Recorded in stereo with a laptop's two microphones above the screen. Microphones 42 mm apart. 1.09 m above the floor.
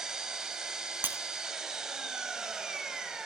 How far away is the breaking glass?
About 1.8 m.